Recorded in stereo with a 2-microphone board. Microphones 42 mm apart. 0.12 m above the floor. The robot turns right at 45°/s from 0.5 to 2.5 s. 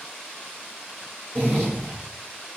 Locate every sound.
1.4 s a zipper: 140° left, 1.5 m; by 2.0 s 170° left, 1.5 m